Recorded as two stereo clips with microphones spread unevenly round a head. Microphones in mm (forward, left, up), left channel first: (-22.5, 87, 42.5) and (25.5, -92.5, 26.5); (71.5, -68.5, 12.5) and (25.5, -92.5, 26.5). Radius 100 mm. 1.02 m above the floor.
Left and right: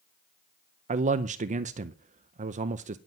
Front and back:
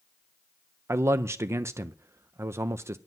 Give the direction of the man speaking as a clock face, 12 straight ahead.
4 o'clock.